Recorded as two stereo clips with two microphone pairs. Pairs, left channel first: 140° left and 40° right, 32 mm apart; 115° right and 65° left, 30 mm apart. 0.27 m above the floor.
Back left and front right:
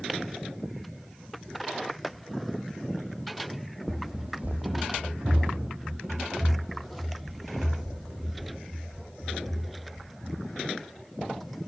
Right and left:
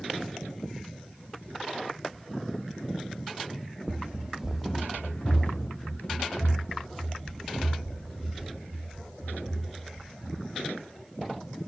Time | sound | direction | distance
3.9 | running footsteps | 55° left | 0.6 m